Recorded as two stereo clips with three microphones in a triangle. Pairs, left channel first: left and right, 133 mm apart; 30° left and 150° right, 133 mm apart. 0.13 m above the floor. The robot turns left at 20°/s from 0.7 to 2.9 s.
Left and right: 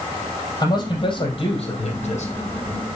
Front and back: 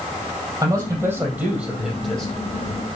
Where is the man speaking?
150° left, 3.5 m; by 2.3 s 120° left, 3.5 m.